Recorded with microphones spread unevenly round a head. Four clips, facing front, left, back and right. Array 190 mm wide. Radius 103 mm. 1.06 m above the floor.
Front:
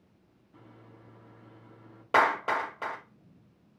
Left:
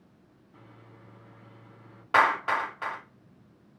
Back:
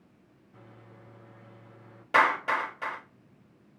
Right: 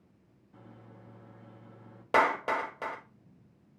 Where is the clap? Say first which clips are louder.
Left 3 dB, even; 65° right, 1.9 m.